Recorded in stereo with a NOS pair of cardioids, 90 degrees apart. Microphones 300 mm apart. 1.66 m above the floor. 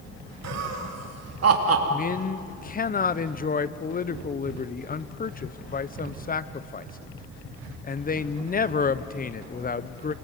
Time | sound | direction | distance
0.4 | laughter | 60° right | 4 m
1.9 | a man speaking | 30° left | 1.2 m